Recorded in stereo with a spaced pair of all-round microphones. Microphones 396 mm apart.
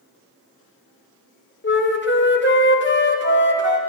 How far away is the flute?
About 1.0 m.